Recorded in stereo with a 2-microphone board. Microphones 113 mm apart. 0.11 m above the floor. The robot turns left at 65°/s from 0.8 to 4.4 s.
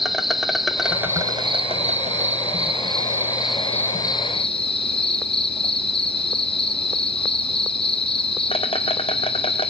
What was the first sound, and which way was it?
An insect, straight ahead.